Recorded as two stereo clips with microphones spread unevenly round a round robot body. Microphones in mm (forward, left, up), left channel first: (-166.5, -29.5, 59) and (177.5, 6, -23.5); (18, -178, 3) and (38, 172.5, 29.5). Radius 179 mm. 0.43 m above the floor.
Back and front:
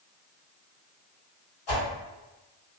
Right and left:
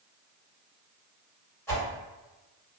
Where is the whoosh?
175° right, 2.0 m.